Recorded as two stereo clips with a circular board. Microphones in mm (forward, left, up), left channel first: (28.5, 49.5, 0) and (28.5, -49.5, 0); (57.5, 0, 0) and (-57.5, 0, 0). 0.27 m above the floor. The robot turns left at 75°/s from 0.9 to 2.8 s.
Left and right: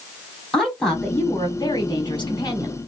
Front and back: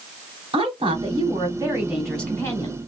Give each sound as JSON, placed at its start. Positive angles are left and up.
{"t": 0.5, "sound": "a woman speaking", "azimuth_deg": 175, "distance_m": 2.5}